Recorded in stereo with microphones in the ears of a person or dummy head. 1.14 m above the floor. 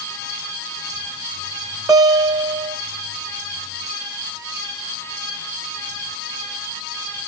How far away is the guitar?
About 1.0 m.